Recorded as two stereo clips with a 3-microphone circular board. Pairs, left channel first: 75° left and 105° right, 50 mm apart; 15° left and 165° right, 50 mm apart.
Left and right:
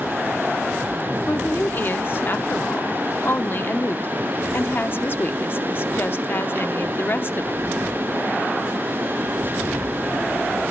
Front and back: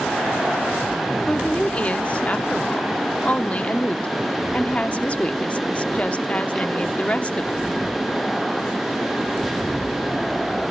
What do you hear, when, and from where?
1.3 s a woman speaking: 65° left, 0.9 m